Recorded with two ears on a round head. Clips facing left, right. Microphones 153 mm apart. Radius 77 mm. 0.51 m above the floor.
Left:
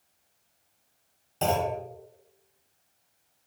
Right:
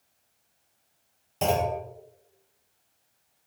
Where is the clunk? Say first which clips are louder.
Right 1 dB; 10° right (ahead or behind), 0.7 m.